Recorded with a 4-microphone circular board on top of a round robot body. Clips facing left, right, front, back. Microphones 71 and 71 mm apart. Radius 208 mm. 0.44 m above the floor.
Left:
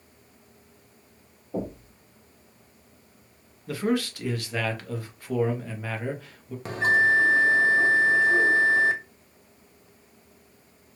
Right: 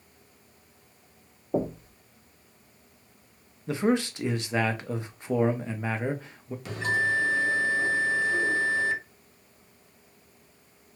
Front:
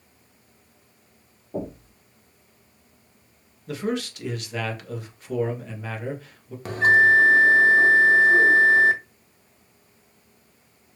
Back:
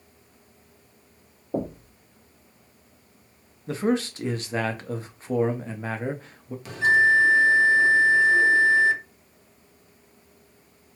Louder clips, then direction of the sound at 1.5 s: Right 4 dB, back 3 dB; 135° right.